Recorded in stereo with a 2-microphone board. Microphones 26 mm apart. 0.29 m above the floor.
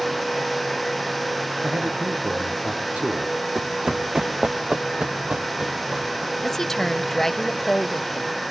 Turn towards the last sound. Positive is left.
turn(degrees=15)  # may be behind; listen again after turning